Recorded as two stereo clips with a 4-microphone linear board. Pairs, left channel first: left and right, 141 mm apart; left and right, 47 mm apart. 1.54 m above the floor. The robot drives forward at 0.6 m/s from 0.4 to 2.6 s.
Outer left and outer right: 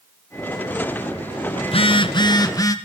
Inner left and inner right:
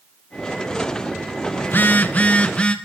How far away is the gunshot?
I don't hear a gunshot.